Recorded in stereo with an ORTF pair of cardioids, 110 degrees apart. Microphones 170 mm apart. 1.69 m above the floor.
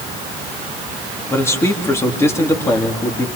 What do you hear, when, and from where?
1.3 s a man speaking: 15° left, 3.5 m